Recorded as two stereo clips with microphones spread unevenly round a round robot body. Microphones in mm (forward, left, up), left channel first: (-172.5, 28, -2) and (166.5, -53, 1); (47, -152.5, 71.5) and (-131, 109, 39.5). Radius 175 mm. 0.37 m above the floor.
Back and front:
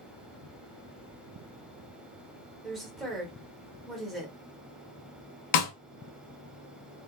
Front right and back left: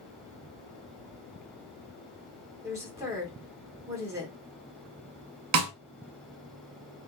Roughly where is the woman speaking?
Left.